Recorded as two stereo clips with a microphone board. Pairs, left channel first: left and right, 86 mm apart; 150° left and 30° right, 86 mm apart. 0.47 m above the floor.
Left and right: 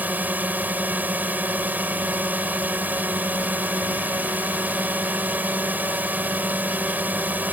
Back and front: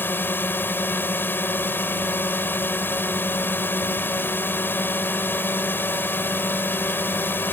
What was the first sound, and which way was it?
A drone, 155° right.